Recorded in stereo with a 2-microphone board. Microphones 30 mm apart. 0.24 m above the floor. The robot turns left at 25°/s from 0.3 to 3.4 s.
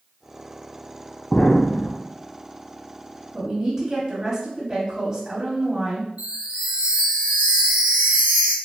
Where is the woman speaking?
25° right (ahead or behind), 1.4 m.